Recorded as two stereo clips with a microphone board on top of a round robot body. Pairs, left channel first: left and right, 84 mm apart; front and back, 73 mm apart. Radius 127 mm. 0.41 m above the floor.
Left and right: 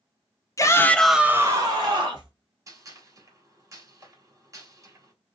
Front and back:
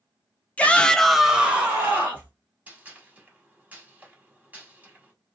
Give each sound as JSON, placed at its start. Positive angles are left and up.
{"t": 0.6, "sound": "a shout", "azimuth_deg": 65, "distance_m": 0.9}
{"t": 2.7, "sound": "a gunshot", "azimuth_deg": -120, "distance_m": 1.9}